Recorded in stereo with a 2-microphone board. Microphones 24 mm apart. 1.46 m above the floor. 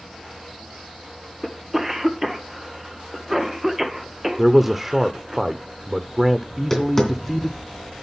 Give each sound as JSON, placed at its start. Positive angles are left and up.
{"t": 1.4, "sound": "a cough", "side_deg": -10, "distance_m": 1.2}
{"t": 4.4, "sound": "a man speaking", "side_deg": -10, "distance_m": 0.6}
{"t": 6.5, "sound": "tapping", "side_deg": 15, "distance_m": 2.5}